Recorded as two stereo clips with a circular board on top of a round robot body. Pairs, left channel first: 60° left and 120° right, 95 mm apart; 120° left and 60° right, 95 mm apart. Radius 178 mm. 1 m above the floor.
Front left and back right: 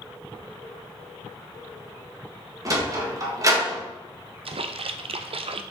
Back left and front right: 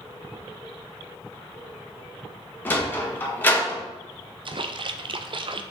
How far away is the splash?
About 0.5 m.